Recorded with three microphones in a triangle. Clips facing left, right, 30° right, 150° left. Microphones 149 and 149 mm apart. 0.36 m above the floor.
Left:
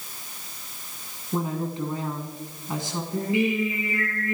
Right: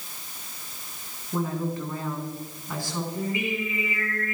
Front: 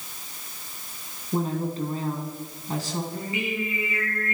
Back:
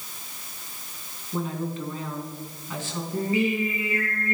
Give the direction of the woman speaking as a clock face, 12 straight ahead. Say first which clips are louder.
Even, front 3 dB; 11 o'clock.